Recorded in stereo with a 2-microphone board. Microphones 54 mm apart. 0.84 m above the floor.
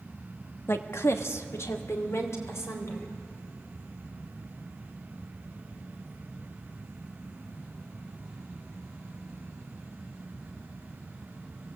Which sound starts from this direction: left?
A woman speaking, at 0.7 s.